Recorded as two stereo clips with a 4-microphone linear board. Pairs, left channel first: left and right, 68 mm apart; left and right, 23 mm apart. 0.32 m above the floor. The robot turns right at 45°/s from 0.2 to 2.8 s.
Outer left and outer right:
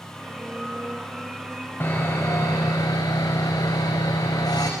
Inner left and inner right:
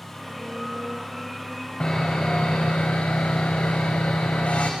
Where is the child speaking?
No child speaking in this recording.